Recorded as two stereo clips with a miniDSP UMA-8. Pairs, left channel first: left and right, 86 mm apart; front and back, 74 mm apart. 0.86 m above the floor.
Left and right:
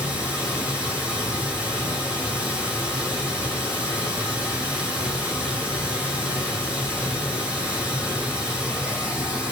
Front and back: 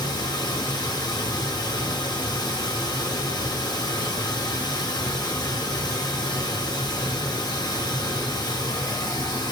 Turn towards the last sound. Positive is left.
turn(degrees=-10)